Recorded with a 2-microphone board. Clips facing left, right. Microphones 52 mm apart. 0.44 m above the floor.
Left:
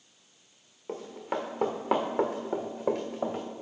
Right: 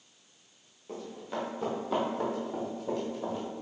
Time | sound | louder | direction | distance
0.9 | running footsteps | left 4 dB | 40° left (ahead or behind) | 2.5 m